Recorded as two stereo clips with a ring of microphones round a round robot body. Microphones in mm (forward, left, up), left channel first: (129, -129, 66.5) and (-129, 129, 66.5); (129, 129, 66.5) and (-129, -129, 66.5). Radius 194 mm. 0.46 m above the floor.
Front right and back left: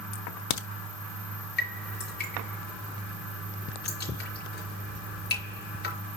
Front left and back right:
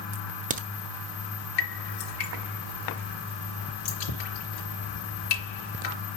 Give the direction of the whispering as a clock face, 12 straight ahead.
No whispering in this recording.